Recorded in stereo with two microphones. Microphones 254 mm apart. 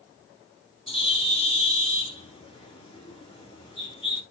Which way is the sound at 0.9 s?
20° left (ahead or behind).